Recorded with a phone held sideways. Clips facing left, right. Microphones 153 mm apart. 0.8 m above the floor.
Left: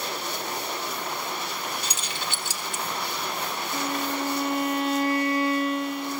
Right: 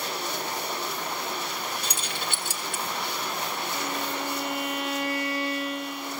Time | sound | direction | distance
1.8 | keys jangling | 55° right (ahead or behind) | 1.4 m
3.7 | a violin | 45° left (ahead or behind) | 1.0 m